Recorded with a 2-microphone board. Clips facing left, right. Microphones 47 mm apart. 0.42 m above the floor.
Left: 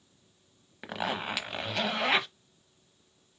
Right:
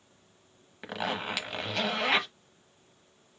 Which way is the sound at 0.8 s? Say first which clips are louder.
Even; 5° left (ahead or behind).